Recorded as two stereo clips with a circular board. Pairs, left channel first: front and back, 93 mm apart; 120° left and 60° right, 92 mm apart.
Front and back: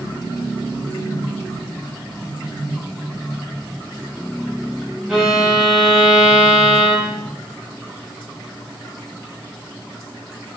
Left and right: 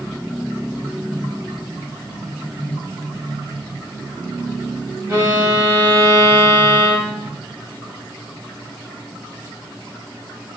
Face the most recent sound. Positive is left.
turn(degrees=-100)